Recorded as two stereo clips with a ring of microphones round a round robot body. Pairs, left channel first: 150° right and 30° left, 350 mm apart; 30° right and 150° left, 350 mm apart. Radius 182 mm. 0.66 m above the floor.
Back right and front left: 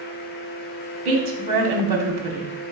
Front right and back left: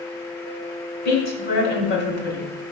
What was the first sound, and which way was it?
A woman speaking, 10° left.